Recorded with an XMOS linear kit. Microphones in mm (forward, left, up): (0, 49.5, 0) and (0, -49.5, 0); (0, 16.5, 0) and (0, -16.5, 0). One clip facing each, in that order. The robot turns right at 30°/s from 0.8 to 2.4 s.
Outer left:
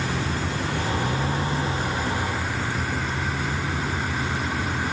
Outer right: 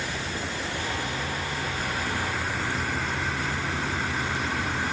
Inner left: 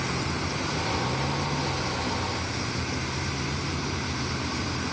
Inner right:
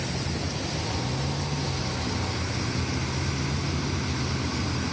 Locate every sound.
0.0 s a vehicle: 125° left; by 4.9 s 175° left